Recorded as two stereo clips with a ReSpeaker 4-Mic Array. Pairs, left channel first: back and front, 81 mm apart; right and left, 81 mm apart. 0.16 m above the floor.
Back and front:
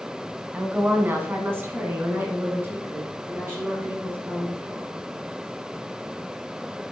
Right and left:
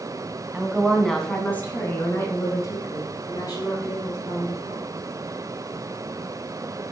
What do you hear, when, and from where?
0.5 s a woman speaking: 40° left, 1.5 m; by 4.9 s 60° right, 4.5 m